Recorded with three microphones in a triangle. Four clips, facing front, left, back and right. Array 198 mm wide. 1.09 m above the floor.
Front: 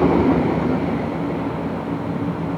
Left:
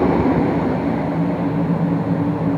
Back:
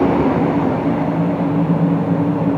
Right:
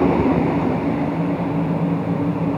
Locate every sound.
Only background noise.